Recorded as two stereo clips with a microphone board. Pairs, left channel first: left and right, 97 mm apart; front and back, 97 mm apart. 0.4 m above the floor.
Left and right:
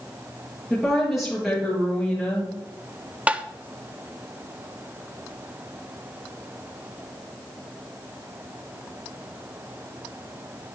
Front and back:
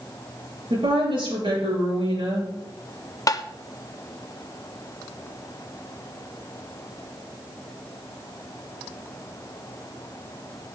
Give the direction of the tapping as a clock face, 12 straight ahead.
1 o'clock.